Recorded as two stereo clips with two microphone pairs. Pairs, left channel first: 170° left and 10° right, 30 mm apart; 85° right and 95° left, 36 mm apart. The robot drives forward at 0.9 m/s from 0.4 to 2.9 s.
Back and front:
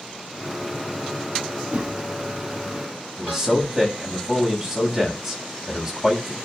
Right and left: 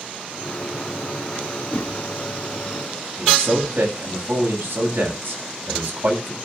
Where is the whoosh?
45° right, 2.0 m; by 2.0 s 50° right, 1.8 m.